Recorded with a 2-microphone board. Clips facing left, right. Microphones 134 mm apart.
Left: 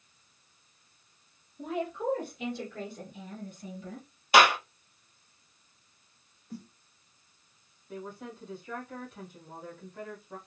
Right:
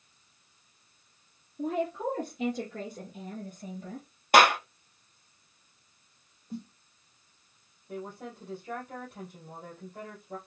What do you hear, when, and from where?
1.6 s a woman speaking: 40° right (ahead or behind), 1.9 m; by 4.1 s 50° right (ahead or behind), 2.5 m
4.3 s a clap: 55° right (ahead or behind), 1.7 m
6.5 s a snare drum: 25° right (ahead or behind), 1.1 m
7.9 s a woman speaking: 60° right (ahead or behind), 3 m